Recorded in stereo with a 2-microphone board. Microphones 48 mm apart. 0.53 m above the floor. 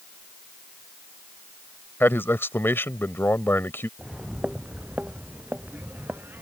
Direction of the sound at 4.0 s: 5° right (ahead or behind).